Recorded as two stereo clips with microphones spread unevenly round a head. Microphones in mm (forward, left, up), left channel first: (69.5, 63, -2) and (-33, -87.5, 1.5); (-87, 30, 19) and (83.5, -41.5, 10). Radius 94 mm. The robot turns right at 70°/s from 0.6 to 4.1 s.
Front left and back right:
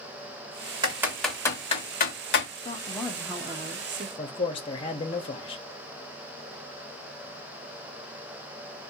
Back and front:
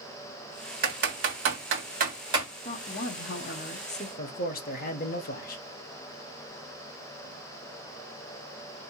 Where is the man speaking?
115° left, 0.8 m.